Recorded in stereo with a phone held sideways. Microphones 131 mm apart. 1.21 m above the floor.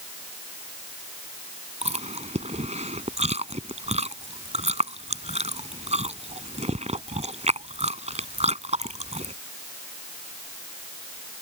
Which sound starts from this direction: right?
Chewing, at 1.8 s.